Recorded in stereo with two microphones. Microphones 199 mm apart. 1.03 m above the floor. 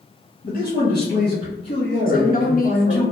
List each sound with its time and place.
0.4 s a man speaking: 50° left (ahead or behind), 0.9 m; by 3.1 s 65° left (ahead or behind), 2.5 m
2.1 s a woman speaking: 45° left (ahead or behind), 1.0 m